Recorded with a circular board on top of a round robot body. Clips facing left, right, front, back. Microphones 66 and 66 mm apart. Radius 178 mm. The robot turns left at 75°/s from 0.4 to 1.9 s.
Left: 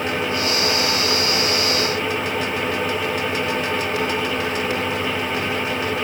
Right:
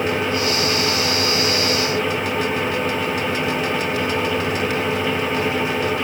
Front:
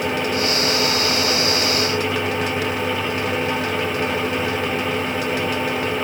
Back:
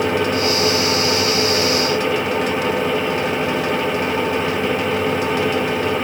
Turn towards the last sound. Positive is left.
No sound to turn to.